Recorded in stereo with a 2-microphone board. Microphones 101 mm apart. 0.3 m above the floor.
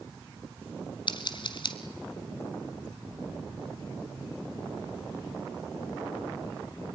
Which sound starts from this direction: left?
Scissors, at 1.1 s.